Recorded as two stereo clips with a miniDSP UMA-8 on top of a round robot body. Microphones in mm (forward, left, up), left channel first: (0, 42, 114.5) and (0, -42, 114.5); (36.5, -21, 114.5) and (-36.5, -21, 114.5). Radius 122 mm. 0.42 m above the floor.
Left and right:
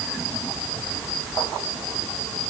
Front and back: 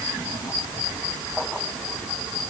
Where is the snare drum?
I don't hear a snare drum.